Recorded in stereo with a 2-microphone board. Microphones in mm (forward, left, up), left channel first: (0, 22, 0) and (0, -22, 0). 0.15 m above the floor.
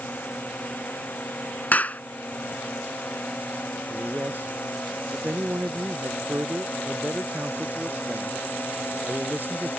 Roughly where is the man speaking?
Right.